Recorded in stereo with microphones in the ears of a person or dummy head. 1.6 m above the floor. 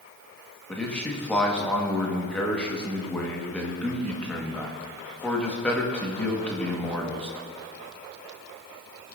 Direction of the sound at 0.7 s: Centre (ahead or behind).